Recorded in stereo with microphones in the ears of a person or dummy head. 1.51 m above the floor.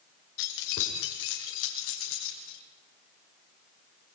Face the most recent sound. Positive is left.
turn(degrees=80)